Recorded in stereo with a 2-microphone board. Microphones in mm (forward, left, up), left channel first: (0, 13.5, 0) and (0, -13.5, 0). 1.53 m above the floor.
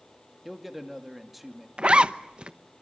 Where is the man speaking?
Centre (ahead or behind), 2 m.